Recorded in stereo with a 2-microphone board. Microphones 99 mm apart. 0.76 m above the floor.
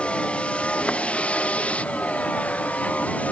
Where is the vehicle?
10° left (ahead or behind); by 3.3 s 15° left (ahead or behind).